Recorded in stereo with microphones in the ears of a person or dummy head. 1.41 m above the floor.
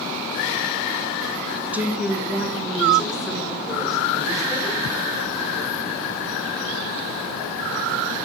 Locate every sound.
1.7 s a woman speaking: 10° right (ahead or behind), 0.6 m; by 4.8 s 5° right (ahead or behind), 4 m